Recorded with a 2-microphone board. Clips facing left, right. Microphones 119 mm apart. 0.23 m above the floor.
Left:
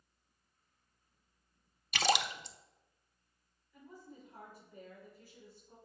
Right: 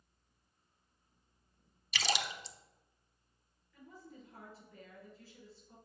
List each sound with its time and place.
1.9 s a splash: 50° left (ahead or behind), 0.5 m
3.7 s a woman speaking: 15° left (ahead or behind), 4 m